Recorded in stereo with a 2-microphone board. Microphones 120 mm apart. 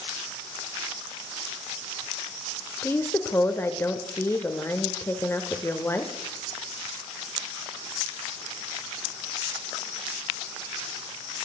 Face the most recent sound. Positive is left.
turn(degrees=20)  # may be behind; listen again after turning